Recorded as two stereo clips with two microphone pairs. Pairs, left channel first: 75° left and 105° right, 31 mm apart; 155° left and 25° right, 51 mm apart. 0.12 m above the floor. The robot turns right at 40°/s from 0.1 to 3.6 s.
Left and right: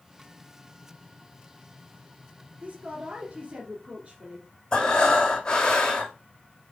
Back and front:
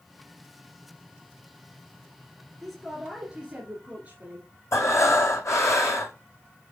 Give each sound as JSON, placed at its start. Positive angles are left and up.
{"t": 2.6, "sound": "a woman speaking", "azimuth_deg": -120, "distance_m": 2.0}
{"t": 4.7, "sound": "breathing", "azimuth_deg": 140, "distance_m": 1.5}